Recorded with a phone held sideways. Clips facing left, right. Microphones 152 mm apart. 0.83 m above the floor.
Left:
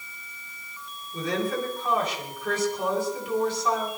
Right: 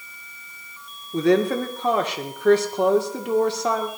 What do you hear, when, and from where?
1.1 s a woman speaking: 70° right (ahead or behind), 2.5 m